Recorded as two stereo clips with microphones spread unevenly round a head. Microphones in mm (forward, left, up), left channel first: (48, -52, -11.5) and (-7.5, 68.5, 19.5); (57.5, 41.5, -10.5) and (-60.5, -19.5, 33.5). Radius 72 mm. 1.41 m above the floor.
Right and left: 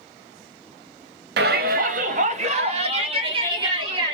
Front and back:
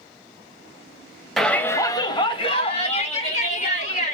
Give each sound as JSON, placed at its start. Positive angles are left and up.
{"t": 1.4, "sound": "a shout", "azimuth_deg": 115, "distance_m": 0.7}